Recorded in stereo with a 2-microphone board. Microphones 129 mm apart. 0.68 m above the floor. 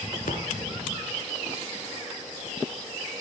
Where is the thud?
80° left, 2 m.